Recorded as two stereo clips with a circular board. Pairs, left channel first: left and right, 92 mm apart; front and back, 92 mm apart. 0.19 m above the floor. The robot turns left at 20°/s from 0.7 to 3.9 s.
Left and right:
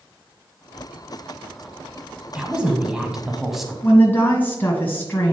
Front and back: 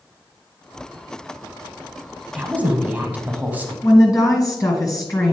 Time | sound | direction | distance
2.4 | a woman speaking | 145° right | 1.0 m
3.8 | a woman speaking | 30° left | 1.9 m